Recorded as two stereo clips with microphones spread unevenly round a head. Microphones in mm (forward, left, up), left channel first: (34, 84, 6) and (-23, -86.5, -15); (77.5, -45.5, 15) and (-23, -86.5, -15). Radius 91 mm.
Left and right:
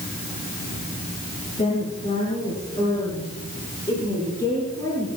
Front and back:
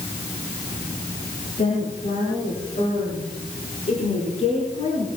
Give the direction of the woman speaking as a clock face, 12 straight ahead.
11 o'clock.